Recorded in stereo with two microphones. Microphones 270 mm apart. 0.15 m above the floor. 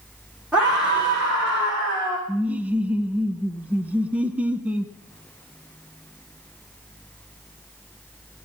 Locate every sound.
0.5 s a scream: 5° right (ahead or behind), 10 m
2.3 s laughter: 5° right (ahead or behind), 1.2 m